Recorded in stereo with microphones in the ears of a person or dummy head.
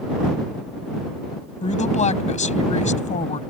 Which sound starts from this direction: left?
A woman speaking, at 1.6 s.